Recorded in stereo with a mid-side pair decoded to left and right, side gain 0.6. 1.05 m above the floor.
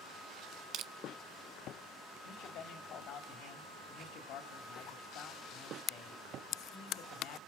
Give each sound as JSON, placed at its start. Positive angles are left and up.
{"t": 0.7, "sound": "crushing", "azimuth_deg": -60, "distance_m": 0.8}
{"t": 2.2, "sound": "a man speaking", "azimuth_deg": 60, "distance_m": 3.5}